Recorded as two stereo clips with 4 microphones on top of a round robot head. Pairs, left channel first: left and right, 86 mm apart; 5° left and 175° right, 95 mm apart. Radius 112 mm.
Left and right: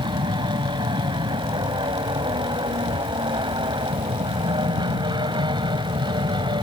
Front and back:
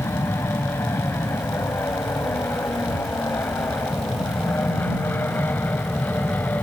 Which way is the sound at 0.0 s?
60° right.